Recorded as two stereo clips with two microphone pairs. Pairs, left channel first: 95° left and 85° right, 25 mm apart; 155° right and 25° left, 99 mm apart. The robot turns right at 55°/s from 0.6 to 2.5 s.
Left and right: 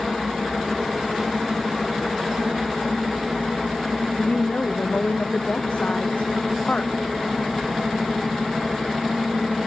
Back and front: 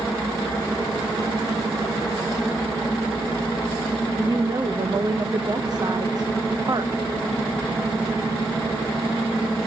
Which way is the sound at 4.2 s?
75° left.